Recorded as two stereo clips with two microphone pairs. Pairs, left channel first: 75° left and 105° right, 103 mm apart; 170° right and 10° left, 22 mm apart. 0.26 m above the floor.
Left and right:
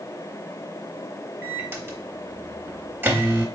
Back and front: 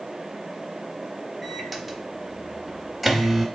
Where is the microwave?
70° right, 0.8 m.